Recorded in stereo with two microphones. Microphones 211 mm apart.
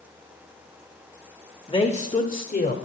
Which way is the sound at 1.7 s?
25° left (ahead or behind).